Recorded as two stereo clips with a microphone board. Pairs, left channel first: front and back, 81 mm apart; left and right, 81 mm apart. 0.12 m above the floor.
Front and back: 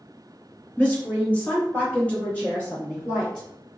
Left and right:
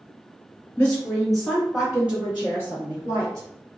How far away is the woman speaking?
About 1.7 m.